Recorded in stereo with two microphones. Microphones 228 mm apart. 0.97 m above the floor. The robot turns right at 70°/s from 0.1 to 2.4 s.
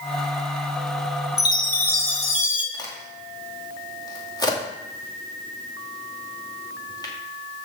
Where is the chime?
50° left, 1.5 m; by 2.6 s 120° left, 1.5 m.